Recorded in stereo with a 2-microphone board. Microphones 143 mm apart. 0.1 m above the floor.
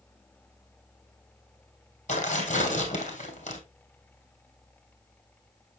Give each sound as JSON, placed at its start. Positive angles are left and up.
{"t": 2.1, "sound": "tearing paper", "side_deg": 55, "distance_m": 2.5}